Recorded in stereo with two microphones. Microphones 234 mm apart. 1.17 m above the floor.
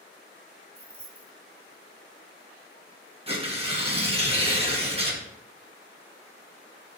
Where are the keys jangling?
70° right (ahead or behind), 1.2 m.